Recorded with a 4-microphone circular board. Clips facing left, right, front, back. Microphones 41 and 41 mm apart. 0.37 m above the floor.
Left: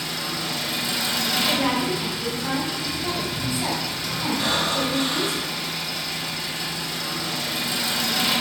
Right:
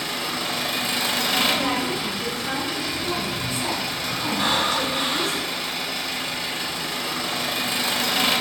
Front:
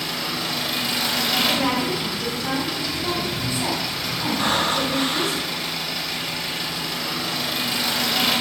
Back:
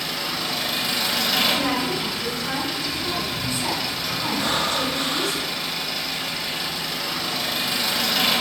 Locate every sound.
0.0 s an engine running: 90° right, 0.9 m
1.5 s a woman speaking: 40° left, 2.5 m
4.4 s breathing: 35° right, 0.7 m